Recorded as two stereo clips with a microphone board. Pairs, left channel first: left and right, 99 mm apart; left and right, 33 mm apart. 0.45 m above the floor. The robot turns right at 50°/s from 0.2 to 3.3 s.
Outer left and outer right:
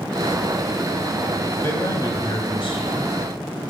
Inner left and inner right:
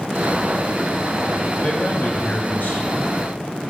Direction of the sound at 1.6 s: 25° left.